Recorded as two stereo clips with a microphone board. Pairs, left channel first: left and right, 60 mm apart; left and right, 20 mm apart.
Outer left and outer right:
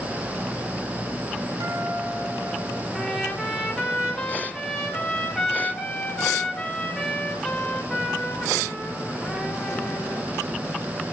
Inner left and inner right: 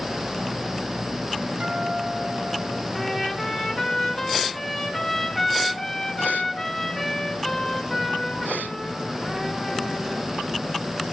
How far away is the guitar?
About 3 m.